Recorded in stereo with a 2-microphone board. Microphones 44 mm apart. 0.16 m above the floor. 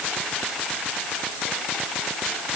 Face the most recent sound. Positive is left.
No sound to turn to.